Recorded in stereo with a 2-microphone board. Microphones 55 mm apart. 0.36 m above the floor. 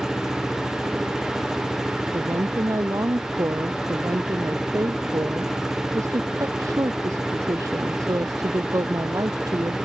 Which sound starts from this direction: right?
A woman speaking, at 2.1 s.